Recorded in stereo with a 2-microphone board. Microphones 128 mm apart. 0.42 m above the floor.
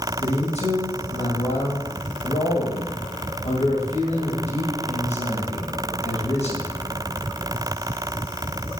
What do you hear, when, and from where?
0.2 s a man speaking: 60° left (ahead or behind), 2.5 m